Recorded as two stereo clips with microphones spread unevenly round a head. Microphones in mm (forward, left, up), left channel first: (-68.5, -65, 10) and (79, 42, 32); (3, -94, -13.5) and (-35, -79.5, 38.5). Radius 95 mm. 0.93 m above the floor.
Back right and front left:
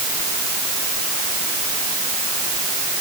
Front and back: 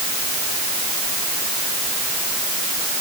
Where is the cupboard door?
I don't hear a cupboard door.